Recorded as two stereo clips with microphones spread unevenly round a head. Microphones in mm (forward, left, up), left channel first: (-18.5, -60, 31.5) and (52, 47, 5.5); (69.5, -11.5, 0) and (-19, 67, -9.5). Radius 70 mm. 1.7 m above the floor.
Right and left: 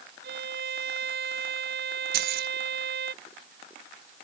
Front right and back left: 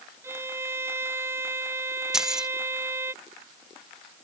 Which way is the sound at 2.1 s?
50° left.